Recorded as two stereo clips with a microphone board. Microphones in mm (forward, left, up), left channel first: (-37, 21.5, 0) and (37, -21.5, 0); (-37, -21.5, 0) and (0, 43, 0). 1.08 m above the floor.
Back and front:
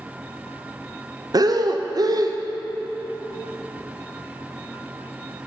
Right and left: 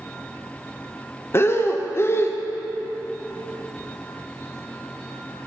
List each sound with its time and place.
1.3 s breathing: 70° right, 0.5 m